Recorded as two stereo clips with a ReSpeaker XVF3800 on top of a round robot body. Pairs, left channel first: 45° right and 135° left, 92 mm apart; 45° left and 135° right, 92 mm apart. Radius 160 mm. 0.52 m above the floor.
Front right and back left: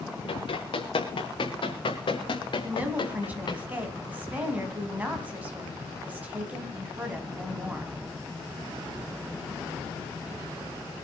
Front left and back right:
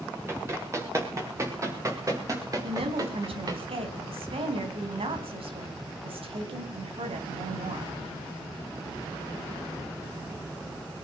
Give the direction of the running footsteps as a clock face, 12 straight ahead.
2 o'clock.